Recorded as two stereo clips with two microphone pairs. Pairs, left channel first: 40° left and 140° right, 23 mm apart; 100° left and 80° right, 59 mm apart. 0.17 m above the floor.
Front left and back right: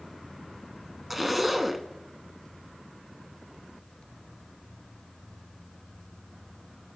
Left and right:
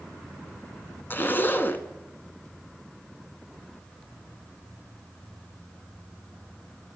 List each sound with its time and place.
1.1 s a zipper: 140° left, 0.6 m